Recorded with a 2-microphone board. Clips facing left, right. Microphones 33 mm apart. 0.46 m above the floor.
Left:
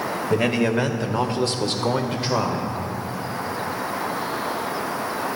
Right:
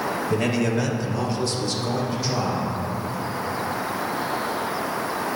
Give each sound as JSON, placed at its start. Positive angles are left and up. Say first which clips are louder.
{"t": 0.3, "sound": "a man speaking", "louder": "left 4 dB", "side_deg": 20, "distance_m": 1.7}